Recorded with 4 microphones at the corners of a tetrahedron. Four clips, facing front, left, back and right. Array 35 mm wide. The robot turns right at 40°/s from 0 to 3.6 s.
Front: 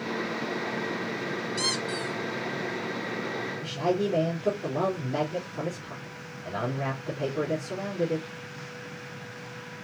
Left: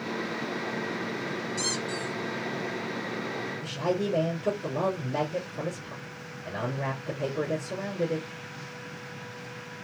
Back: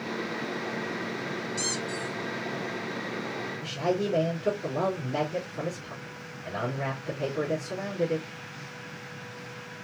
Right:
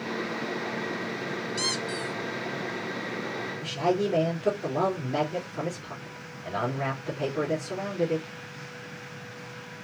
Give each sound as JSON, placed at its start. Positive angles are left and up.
{"t": 1.6, "sound": "a squeak", "azimuth_deg": -55, "distance_m": 0.7}
{"t": 3.6, "sound": "a man speaking", "azimuth_deg": -70, "distance_m": 3.0}